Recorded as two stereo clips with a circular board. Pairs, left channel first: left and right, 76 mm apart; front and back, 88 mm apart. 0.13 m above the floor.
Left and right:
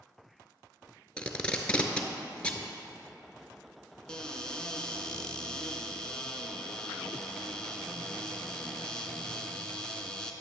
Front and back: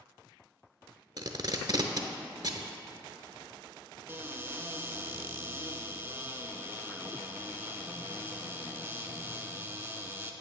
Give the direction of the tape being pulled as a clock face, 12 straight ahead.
7 o'clock.